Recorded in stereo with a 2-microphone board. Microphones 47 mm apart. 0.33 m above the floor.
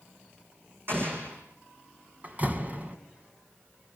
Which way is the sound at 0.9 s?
50° right (ahead or behind).